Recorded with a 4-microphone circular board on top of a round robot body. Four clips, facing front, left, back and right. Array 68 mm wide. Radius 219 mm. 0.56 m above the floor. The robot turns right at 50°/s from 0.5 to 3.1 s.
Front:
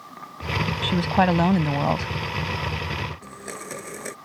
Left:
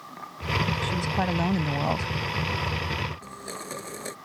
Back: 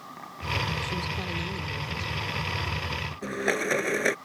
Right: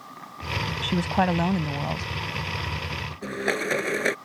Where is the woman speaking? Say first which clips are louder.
Right 3 dB, front 12 dB; 40° right; by 2.1 s 25° left.